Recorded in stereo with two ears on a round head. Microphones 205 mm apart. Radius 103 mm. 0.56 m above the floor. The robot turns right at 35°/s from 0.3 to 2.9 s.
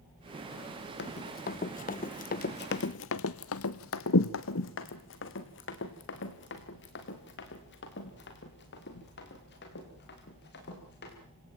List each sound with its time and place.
1.0 s running footsteps: 45° left (ahead or behind), 1.5 m